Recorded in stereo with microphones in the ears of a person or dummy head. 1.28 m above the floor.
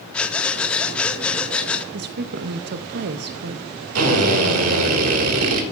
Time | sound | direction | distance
0.1 | breathing | 5° left (ahead or behind) | 0.7 m
1.9 | a woman speaking | 50° right (ahead or behind) | 0.5 m
4.0 | a drill | 75° right (ahead or behind) | 1.8 m